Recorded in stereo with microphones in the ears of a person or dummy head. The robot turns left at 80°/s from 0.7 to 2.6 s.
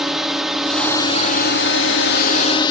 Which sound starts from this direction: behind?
A drone, at 0.0 s.